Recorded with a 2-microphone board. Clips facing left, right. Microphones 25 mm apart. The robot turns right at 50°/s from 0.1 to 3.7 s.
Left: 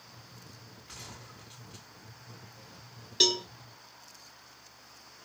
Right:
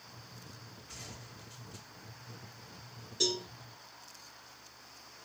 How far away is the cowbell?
About 0.5 m.